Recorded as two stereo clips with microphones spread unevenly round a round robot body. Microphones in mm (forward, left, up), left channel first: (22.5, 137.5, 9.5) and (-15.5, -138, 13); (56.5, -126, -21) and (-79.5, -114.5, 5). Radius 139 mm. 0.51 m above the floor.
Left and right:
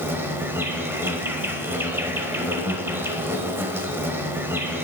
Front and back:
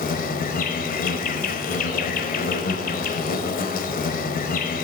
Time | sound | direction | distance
0.0 | an insect | 15° right | 0.8 m